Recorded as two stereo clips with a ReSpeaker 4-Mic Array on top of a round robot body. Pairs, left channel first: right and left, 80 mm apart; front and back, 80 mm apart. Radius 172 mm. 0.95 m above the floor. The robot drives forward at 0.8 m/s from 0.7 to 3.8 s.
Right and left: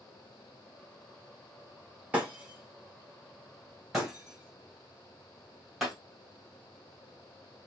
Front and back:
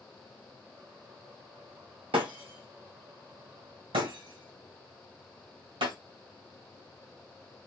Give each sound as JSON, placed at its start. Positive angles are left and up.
{"t": 2.1, "sound": "breaking glass", "azimuth_deg": 165, "distance_m": 0.7}